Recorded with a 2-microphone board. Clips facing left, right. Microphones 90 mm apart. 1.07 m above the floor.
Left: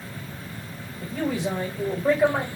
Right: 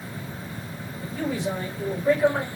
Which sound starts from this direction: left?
A man speaking, at 1.0 s.